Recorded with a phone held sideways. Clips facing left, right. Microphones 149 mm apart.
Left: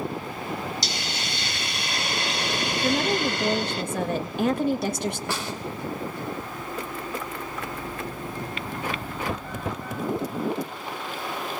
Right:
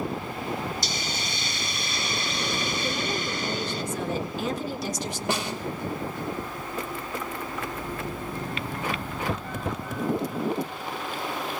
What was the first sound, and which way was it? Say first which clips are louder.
A hiss: even; 75° left (ahead or behind).